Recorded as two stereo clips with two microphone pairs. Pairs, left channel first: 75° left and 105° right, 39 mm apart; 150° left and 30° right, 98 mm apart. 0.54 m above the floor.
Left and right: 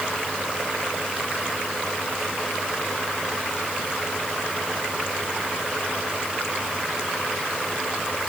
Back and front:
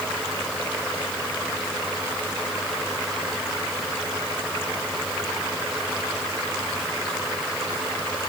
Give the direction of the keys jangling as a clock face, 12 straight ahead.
No keys jangling in this recording.